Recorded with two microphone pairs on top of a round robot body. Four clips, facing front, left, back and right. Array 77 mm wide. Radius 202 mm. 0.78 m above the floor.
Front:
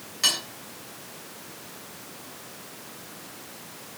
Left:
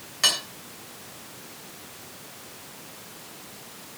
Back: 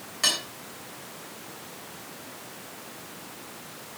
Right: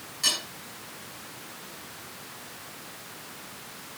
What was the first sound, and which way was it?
Cutlery clinking, 120° left.